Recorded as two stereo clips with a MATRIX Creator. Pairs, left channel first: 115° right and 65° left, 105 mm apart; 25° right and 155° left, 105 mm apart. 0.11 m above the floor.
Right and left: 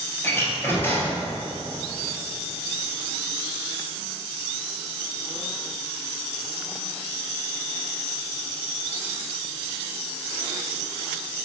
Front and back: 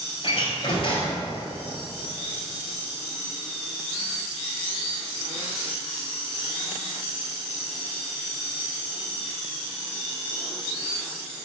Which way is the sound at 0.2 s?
45° right.